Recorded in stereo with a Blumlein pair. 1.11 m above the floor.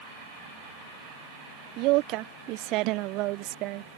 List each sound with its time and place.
1.8 s a woman speaking: 40° right